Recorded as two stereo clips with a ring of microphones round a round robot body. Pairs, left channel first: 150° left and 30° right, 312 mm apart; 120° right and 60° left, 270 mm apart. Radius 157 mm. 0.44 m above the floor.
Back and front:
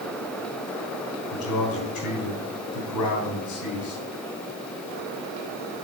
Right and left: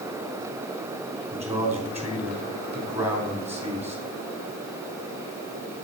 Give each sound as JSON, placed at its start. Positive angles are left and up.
{"t": 1.3, "sound": "a man speaking", "azimuth_deg": 140, "distance_m": 3.0}